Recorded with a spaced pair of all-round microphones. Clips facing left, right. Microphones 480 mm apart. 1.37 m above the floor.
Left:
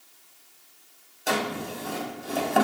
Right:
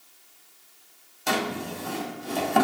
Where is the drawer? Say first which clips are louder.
Even; 20° right (ahead or behind), 0.6 m.